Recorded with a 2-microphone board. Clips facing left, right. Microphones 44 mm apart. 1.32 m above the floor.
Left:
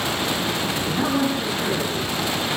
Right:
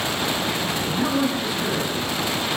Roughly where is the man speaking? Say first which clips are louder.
Even; centre.